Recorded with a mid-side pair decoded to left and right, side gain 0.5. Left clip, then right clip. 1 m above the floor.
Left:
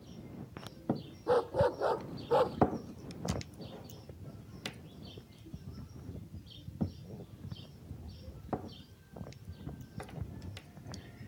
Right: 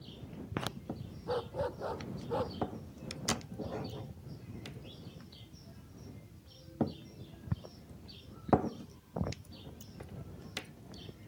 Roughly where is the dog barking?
Ahead left.